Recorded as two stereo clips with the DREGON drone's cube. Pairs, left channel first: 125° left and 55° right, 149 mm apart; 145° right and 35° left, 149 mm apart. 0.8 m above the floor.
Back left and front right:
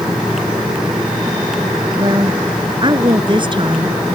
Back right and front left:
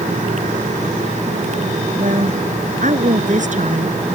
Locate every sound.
2.0 s a woman speaking: 5° left; by 4.2 s straight ahead